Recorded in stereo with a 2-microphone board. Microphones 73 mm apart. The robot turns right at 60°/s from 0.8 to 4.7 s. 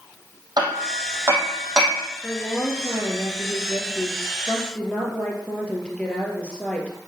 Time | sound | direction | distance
0.6 | hammering | 65° right (ahead or behind) | 3.5 m
2.2 | a woman speaking | 15° left | 3 m